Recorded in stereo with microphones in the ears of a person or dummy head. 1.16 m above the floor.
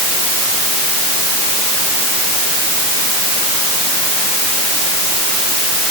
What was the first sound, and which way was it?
Only background noise.